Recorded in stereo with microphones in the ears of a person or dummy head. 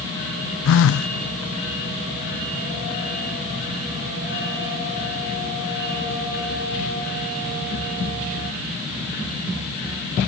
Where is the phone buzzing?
70° left (ahead or behind).